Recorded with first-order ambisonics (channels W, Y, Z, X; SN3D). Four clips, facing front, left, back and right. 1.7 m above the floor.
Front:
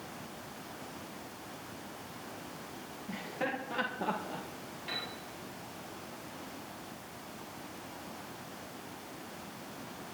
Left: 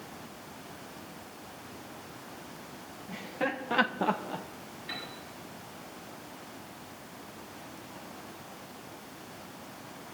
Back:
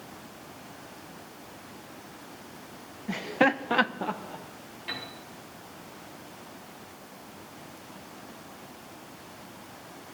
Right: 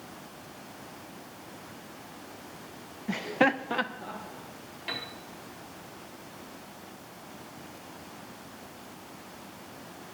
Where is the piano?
105° right, 3.5 m.